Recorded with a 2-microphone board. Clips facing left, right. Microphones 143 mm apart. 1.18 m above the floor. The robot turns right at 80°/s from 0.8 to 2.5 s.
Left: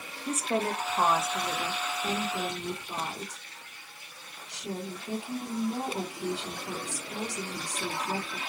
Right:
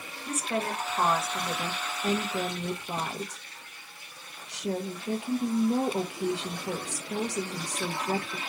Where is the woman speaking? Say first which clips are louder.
Left 2 dB; 150° left, 1.1 m; by 8.4 s 75° right, 1.1 m.